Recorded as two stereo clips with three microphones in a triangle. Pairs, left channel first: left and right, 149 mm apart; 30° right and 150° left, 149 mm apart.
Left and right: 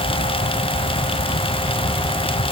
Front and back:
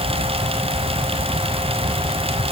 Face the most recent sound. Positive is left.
No sound to turn to.